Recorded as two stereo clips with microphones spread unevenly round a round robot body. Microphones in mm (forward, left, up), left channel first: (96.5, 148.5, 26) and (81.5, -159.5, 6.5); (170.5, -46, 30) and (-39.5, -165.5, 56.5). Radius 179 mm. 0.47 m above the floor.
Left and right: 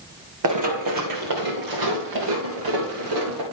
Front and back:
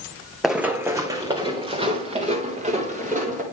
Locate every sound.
0.4 s running footsteps: 65° right, 1.2 m; by 3.4 s 90° right, 3 m